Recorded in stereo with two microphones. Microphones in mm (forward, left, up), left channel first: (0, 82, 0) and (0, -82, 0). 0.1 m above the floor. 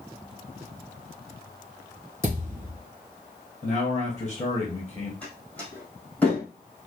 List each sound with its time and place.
2.2 s a thud: 15° right (ahead or behind), 2.5 m
3.6 s a man speaking: 15° left (ahead or behind), 1.9 m
5.2 s a door slam: 10° left (ahead or behind), 2.5 m